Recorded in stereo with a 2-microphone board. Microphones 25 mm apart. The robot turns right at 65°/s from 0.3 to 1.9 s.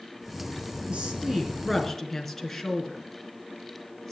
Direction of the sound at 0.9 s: 55° right.